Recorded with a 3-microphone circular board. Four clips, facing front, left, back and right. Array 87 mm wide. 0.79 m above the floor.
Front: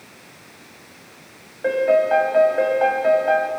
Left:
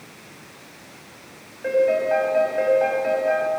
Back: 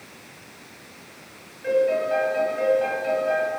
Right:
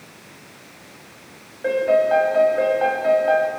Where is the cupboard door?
I don't hear a cupboard door.